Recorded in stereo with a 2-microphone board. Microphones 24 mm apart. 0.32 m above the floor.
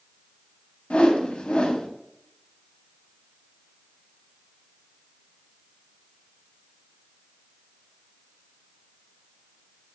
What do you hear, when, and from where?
0.9 s a whoosh: 70° left (ahead or behind), 0.7 m